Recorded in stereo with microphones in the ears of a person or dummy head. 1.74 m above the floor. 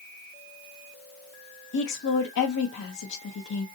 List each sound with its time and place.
1.7 s a woman speaking: 60° left (ahead or behind), 0.6 m